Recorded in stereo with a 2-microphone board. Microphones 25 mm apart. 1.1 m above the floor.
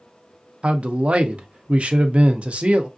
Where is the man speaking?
50° right (ahead or behind), 0.6 m.